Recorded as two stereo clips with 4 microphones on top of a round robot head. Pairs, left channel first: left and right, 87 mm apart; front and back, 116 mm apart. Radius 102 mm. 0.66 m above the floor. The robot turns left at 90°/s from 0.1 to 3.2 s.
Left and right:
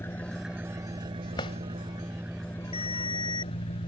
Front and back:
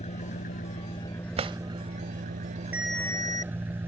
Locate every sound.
0.0 s an engine running: 25° left; by 3.9 s 105° left
1.4 s a drawer: 150° left; by 1.6 s 125° left
2.7 s a ringtone: 105° left; by 3.5 s 60° left